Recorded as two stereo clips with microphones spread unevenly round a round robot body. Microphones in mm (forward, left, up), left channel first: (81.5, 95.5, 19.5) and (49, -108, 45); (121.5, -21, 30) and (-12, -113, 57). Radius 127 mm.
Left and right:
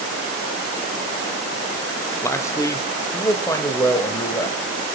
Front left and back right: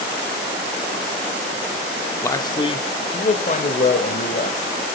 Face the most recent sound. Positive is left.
turn(degrees=5)